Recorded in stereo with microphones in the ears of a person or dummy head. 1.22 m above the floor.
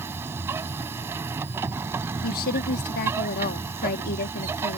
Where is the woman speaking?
50° left (ahead or behind).